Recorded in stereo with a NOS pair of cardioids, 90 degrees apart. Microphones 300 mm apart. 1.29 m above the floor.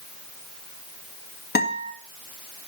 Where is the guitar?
30° left, 2 m.